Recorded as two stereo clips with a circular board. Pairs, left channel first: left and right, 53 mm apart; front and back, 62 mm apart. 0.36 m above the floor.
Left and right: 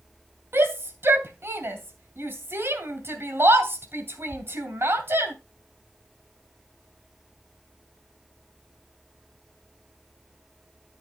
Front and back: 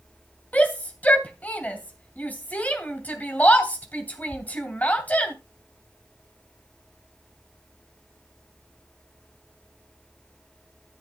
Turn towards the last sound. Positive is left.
turn(degrees=-60)